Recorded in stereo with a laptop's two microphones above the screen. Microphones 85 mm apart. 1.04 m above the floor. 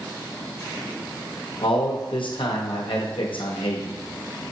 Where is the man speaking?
85° left, 0.9 m.